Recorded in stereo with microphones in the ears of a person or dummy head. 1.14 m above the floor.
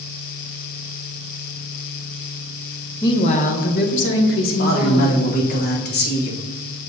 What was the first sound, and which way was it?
A woman speaking, 15° left (ahead or behind).